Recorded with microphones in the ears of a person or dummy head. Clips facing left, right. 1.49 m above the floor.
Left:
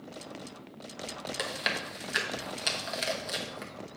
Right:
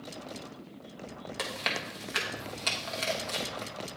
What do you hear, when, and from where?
1.4 s chewing: 10° left (ahead or behind), 0.9 m